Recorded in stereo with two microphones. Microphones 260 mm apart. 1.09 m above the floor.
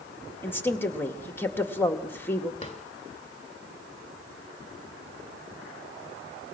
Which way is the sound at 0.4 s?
10° left (ahead or behind).